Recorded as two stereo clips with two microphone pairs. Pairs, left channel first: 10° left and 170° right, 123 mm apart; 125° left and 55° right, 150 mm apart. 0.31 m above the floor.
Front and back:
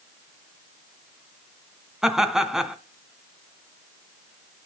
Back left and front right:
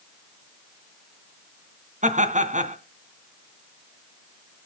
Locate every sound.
2.0 s laughter: 85° right, 2.5 m